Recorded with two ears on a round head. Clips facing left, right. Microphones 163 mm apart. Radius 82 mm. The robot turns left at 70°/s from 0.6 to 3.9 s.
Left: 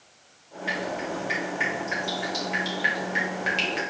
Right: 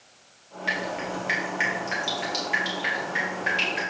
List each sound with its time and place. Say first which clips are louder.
0.7 s dripping: left 1 dB; 40° right (ahead or behind), 3 m; by 3.8 s 80° left, 3 m